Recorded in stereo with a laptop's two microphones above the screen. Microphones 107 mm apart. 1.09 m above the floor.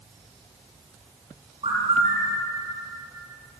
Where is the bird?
55° right (ahead or behind), 5.5 m.